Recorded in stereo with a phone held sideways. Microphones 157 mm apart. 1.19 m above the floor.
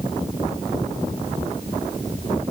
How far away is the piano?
No piano in this recording.